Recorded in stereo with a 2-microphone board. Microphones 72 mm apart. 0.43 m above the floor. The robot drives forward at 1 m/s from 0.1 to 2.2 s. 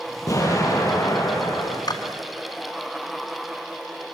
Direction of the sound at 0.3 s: 45° left (ahead or behind).